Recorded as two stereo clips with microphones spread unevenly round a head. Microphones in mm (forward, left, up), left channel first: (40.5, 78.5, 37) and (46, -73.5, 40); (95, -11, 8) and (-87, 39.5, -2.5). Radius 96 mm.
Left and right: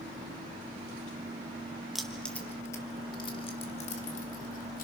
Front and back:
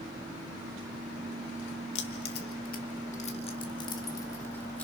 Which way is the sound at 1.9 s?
Straight ahead.